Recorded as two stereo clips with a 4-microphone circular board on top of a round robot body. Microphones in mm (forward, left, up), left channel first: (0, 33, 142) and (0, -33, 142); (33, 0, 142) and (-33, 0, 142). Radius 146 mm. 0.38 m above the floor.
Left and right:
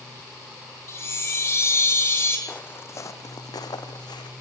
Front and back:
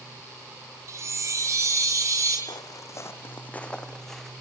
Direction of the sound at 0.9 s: 140° left.